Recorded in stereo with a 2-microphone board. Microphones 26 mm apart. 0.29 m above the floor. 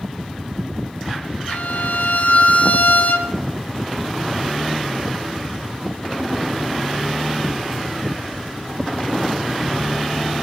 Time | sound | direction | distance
1.5 | a violin | 70° left (ahead or behind) | 2 m